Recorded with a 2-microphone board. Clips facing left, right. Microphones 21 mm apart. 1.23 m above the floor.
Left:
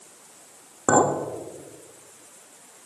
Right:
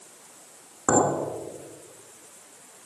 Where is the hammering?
I don't hear hammering.